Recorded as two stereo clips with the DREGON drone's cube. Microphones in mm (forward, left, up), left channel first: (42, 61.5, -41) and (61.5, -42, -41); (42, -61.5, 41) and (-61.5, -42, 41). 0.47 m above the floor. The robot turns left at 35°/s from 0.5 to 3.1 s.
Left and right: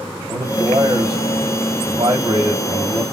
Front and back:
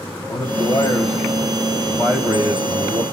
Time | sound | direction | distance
0.3 | a man speaking | 40° right | 1.7 m